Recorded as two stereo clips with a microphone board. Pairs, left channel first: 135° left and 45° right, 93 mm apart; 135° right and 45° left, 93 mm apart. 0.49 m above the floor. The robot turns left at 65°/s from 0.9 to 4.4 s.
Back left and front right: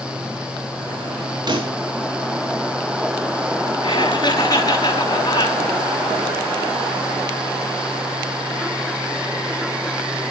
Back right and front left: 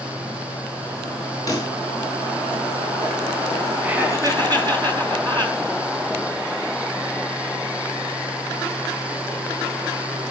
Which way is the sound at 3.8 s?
125° left.